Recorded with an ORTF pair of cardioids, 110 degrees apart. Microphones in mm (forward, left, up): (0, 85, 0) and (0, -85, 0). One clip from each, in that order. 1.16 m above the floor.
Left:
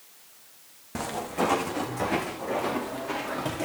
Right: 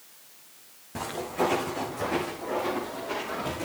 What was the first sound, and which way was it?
Footsteps, 35° left.